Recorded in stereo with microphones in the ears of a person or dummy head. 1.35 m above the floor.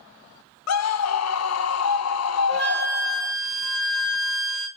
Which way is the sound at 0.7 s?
80° left.